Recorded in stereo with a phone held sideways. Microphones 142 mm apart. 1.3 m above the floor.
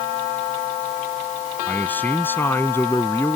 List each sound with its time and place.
1.7 s a man speaking: 10° left (ahead or behind); by 3.4 s 15° left (ahead or behind)